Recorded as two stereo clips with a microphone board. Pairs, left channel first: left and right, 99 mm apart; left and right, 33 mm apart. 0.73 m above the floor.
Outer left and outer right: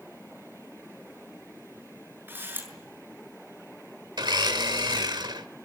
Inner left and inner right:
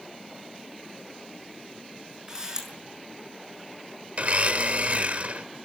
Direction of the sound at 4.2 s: 45° right (ahead or behind).